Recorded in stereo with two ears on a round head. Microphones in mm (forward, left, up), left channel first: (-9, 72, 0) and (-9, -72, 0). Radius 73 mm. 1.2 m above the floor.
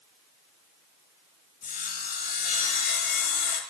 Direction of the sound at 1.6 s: 55° left (ahead or behind).